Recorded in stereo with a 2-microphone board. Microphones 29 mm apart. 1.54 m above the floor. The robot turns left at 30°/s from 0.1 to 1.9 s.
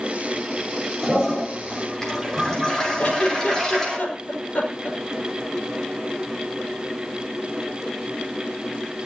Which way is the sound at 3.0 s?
50° left (ahead or behind).